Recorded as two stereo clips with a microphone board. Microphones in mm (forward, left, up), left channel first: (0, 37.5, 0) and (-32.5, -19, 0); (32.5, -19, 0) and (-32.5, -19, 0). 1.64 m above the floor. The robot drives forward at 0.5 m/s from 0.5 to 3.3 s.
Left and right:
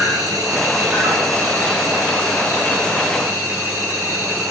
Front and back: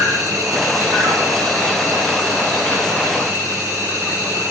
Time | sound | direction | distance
0.0 | an insect | 145° right | 1.2 m